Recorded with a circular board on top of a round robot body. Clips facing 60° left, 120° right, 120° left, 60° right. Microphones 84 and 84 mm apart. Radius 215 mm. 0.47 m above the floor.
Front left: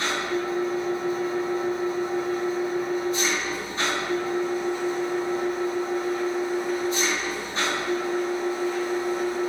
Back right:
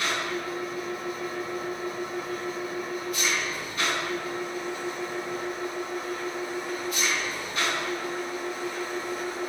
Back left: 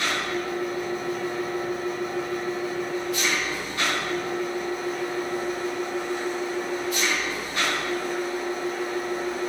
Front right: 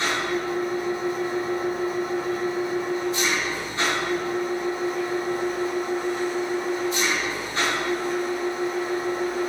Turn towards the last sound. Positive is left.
turn(degrees=0)